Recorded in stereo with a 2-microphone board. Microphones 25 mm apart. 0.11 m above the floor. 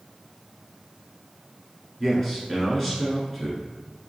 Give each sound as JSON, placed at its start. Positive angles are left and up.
{"t": 2.0, "sound": "a man speaking", "side_deg": 10, "distance_m": 1.2}